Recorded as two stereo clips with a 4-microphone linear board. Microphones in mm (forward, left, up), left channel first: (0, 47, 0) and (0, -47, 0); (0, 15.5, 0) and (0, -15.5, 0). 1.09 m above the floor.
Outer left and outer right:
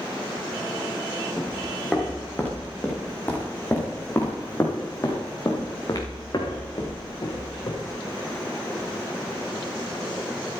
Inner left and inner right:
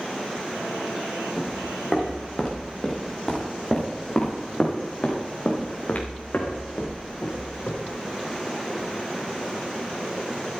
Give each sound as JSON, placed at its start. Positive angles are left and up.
{"t": 1.4, "sound": "footsteps", "side_deg": 10, "distance_m": 6.0}